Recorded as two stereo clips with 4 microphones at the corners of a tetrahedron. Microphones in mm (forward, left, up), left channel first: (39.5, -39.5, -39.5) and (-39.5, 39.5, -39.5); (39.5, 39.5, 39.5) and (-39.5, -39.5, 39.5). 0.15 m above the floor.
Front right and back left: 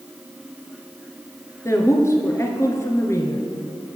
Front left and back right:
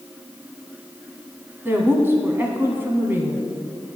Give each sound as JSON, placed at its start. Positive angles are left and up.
{"t": 1.6, "sound": "a woman speaking", "azimuth_deg": -80, "distance_m": 1.7}